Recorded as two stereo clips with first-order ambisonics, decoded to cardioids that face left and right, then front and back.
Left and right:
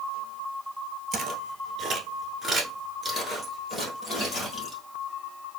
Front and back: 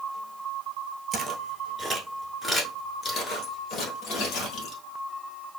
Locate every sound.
1.1 s footsteps: 135° right, 1.1 m; by 4.8 s 30° left, 1.7 m